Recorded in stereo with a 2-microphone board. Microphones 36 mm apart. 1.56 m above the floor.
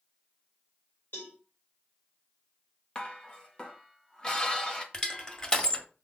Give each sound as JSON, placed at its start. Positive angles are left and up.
{"t": 1.1, "sound": "a cowbell", "side_deg": 85, "distance_m": 5.0}
{"t": 3.0, "sound": "dishes clattering", "side_deg": 25, "distance_m": 1.5}
{"t": 4.9, "sound": "crushing", "side_deg": 25, "distance_m": 1.5}